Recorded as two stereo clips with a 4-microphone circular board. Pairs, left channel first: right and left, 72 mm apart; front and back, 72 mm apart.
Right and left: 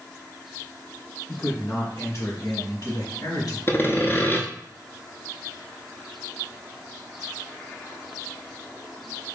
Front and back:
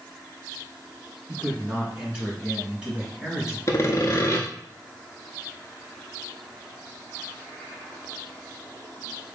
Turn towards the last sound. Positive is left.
turn(degrees=-35)